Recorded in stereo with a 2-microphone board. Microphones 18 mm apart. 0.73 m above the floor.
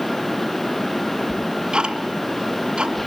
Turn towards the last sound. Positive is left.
turn(degrees=-50)  # may be behind; listen again after turning